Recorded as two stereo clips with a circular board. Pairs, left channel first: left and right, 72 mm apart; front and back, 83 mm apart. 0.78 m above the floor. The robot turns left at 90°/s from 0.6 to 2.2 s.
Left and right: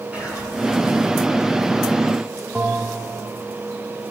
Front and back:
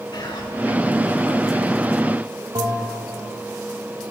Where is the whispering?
15° right, 8.5 m.